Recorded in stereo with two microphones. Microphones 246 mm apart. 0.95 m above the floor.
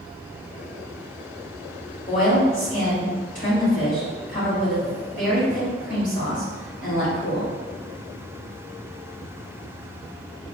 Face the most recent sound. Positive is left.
turn(degrees=30)  # may be behind; listen again after turning